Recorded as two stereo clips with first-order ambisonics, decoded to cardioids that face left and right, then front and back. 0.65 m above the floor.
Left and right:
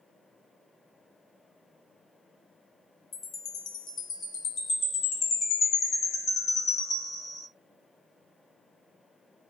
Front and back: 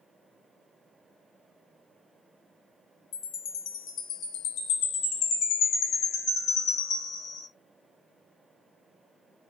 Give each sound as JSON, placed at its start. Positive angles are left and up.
{"t": 3.1, "sound": "a chime", "azimuth_deg": 35, "distance_m": 1.6}